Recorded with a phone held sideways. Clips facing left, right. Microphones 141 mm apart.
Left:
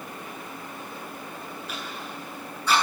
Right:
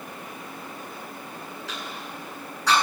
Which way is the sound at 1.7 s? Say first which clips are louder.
Even; 85° right.